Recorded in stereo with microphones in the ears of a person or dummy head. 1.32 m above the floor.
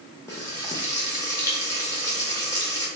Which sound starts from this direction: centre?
Frying, at 0.3 s.